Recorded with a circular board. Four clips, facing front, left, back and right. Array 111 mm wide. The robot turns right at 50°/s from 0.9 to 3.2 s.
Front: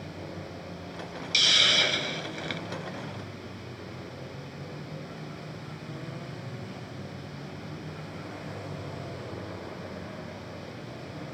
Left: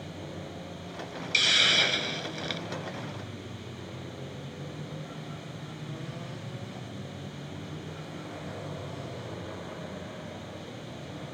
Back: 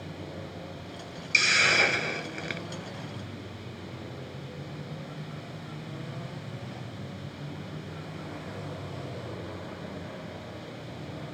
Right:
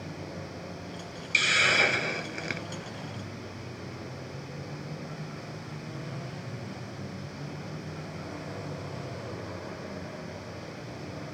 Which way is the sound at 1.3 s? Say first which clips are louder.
Right 3 dB, back 4 dB; 165° right.